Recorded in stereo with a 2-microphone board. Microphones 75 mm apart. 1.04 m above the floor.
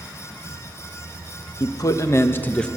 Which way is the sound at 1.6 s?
50° left (ahead or behind).